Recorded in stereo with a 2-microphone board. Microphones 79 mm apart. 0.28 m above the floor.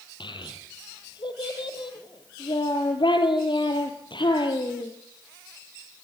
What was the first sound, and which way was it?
A child speaking, 80° left.